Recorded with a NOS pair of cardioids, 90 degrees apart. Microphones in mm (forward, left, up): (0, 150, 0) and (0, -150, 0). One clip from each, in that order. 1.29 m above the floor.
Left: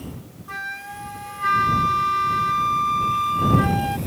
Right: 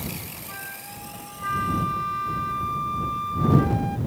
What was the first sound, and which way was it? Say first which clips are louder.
A flute: left 10 dB; 45° left.